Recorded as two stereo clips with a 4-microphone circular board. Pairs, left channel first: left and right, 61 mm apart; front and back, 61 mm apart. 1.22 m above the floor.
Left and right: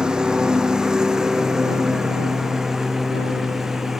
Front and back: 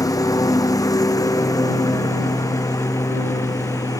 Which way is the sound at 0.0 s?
15° right.